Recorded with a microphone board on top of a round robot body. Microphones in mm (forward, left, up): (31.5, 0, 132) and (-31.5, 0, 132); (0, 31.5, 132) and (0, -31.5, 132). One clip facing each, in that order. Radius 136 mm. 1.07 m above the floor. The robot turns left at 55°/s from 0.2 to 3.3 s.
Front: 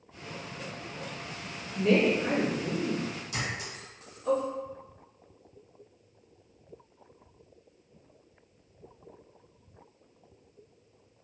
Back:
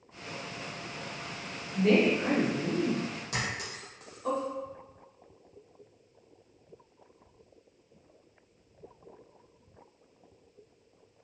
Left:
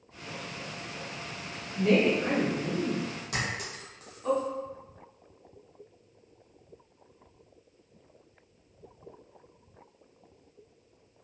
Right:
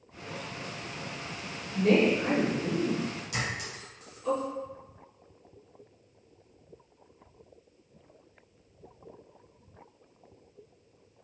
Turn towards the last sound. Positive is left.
turn(degrees=140)